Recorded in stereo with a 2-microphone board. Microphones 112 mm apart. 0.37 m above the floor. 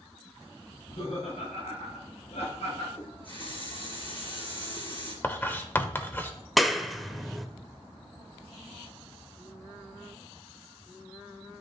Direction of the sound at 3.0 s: 50° left (ahead or behind).